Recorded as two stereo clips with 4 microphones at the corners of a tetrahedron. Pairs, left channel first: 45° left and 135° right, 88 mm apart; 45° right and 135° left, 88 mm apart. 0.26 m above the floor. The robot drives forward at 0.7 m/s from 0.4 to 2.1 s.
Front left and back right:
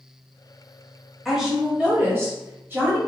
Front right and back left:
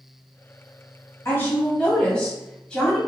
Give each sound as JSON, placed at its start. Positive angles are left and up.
{"t": 1.2, "sound": "a woman speaking", "azimuth_deg": -45, "distance_m": 1.2}